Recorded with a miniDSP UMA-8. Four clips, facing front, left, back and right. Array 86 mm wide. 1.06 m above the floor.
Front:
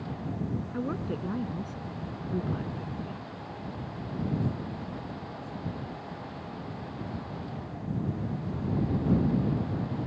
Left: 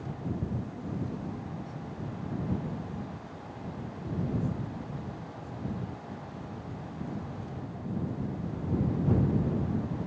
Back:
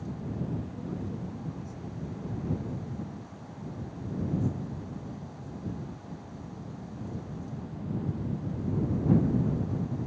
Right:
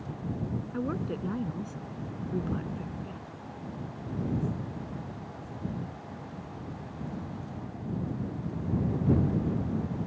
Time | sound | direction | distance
0.7 | a woman speaking | 45° right | ?